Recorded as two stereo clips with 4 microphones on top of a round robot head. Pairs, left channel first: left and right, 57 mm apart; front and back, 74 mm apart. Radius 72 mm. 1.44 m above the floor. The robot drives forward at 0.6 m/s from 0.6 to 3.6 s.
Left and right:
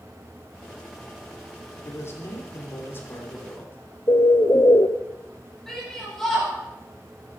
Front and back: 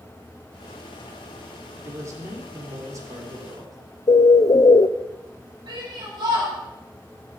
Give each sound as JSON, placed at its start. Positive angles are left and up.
{"t": 1.8, "sound": "a man speaking", "azimuth_deg": 130, "distance_m": 3.5}
{"t": 4.1, "sound": "a bird", "azimuth_deg": 35, "distance_m": 0.7}
{"t": 5.7, "sound": "a shout", "azimuth_deg": 170, "distance_m": 7.0}